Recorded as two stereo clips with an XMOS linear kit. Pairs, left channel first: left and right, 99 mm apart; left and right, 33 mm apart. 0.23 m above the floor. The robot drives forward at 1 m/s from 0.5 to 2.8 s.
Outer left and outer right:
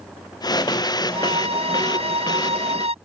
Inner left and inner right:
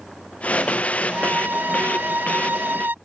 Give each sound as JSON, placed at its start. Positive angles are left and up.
{"t": 1.1, "sound": "a violin", "side_deg": -75}